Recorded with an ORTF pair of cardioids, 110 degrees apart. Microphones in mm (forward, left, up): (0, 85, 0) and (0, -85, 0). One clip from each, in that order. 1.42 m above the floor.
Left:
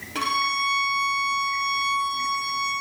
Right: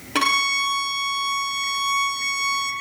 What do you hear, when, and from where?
0.1 s a violin: 45° right, 1.1 m